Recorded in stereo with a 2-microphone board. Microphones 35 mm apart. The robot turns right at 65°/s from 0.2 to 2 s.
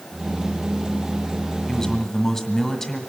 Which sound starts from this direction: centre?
A man speaking, at 1.7 s.